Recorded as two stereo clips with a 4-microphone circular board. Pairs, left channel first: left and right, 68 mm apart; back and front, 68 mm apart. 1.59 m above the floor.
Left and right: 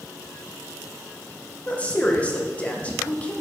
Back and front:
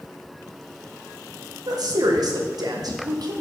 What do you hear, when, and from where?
1.7 s a woman speaking: 20° left, 1.7 m